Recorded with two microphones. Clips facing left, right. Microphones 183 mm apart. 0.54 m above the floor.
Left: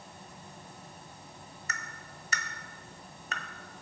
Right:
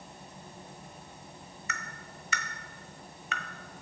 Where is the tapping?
40° left (ahead or behind), 1.3 m.